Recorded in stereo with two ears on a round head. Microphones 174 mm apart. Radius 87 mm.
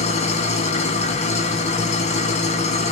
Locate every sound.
0.0 s an engine running: 35° left (ahead or behind), 1.7 m